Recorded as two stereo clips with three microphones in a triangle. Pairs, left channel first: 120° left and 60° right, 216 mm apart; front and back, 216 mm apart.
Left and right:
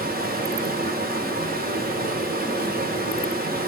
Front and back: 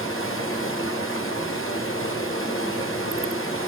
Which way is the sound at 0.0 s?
15° right.